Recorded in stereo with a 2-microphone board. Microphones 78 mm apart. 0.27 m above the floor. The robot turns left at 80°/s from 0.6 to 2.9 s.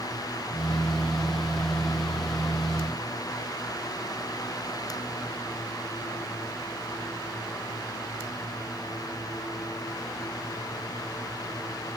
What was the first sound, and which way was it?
Only background noise.